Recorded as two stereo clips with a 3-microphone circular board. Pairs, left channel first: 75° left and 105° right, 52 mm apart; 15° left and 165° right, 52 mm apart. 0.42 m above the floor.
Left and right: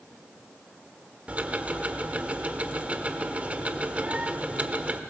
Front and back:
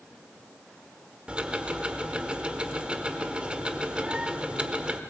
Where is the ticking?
120° right, 1.1 m.